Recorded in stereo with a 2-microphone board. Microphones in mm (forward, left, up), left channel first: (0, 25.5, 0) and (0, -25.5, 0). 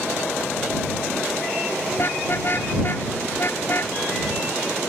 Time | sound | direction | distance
2.0 | a car horn | 45° left (ahead or behind) | ?